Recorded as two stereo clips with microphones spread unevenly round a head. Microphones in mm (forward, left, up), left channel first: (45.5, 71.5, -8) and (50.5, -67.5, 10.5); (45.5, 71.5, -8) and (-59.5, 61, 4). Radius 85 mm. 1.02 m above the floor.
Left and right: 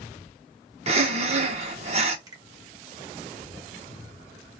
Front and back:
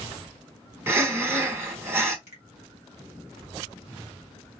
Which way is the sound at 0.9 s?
105° right.